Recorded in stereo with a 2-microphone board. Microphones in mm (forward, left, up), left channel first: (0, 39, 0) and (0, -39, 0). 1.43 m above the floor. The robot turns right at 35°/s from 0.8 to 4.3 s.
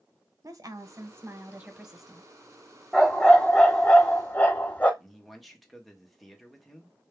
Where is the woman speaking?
45° right, 0.9 m; by 2.3 s 5° left, 0.9 m.